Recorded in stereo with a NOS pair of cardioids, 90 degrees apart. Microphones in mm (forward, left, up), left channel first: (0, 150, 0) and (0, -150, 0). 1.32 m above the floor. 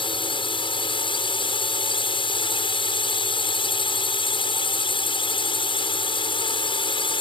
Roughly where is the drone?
Ahead.